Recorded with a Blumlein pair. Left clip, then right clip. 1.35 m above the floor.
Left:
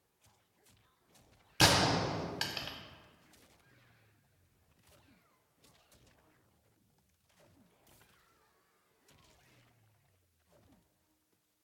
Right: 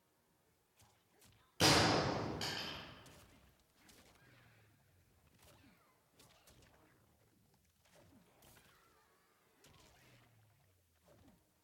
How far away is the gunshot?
About 0.7 m.